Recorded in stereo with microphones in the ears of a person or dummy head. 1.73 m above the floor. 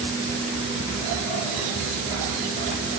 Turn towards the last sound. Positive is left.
No sound to turn to.